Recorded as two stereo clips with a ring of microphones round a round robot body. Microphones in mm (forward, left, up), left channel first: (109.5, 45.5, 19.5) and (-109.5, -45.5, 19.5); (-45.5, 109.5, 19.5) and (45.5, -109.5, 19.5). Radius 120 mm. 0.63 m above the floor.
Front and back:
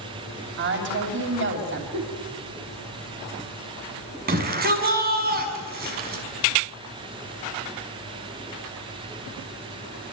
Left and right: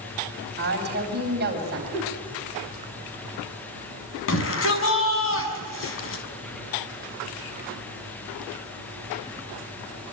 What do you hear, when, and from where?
0.6 s a woman speaking: 115° right, 3.5 m
1.9 s a giggle: 170° right, 4 m
4.3 s a shout: 150° left, 5.5 m